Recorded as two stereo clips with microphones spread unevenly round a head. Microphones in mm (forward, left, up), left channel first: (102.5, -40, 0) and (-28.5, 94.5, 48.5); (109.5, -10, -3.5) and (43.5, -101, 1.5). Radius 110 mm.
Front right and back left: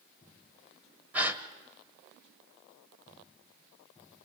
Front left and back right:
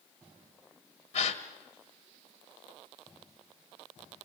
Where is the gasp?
50° left, 1.6 m.